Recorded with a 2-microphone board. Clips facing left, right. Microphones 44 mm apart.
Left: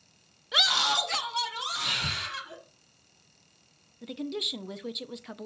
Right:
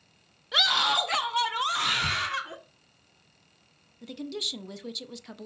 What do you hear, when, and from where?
0.5 s a scream: centre (ahead or behind), 0.6 m; by 2.6 s 50° right (ahead or behind), 1.4 m
1.8 s breathing: centre (ahead or behind), 2 m
4.0 s a woman speaking: 10° left (ahead or behind), 0.5 m